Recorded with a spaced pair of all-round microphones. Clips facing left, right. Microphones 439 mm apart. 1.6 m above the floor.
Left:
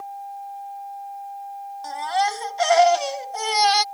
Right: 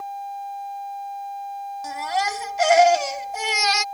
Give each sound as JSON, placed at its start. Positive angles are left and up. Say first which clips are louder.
{"t": 1.8, "sound": "a baby crying", "louder": "left 2 dB", "side_deg": -40}